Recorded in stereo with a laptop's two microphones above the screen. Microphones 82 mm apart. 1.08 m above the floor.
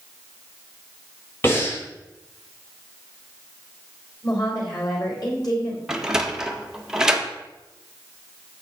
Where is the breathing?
30° left (ahead or behind), 5 m.